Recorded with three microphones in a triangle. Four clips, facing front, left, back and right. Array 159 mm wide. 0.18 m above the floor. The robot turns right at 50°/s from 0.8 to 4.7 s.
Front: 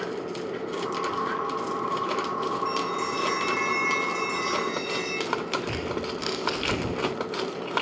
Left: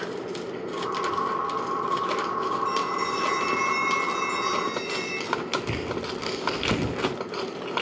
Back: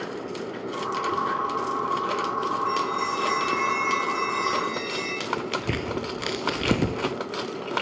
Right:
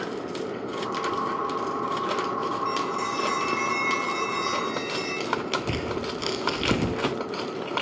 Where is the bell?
60° right, 3 m; by 5.1 s 45° left, 3 m.